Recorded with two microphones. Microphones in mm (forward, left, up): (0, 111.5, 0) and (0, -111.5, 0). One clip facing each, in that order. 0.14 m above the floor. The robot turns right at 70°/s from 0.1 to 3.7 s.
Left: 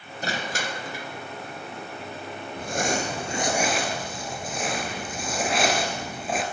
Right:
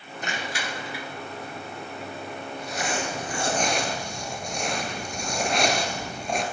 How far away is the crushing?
About 1.6 m.